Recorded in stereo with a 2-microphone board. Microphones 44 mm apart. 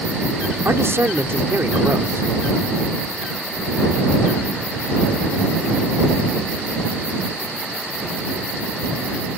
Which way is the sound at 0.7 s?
65° right (ahead or behind).